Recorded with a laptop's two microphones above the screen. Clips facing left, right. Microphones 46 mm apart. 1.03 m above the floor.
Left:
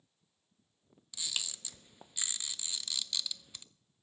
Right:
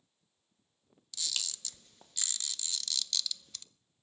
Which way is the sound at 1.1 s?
15° left (ahead or behind).